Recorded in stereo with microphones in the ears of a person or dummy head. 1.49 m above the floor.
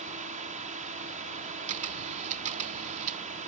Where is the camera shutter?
35° right (ahead or behind).